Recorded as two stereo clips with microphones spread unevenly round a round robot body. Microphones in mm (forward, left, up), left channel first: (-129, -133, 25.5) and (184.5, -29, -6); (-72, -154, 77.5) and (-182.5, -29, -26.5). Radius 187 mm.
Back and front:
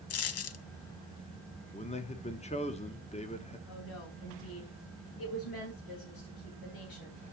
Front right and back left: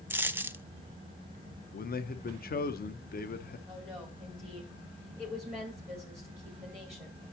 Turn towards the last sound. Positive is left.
turn(degrees=-155)